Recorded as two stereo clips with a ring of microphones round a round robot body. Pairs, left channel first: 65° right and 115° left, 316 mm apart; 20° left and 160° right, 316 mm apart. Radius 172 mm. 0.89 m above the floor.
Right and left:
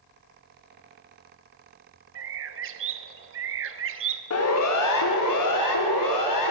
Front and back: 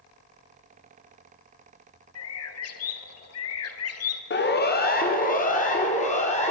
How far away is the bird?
About 1.4 m.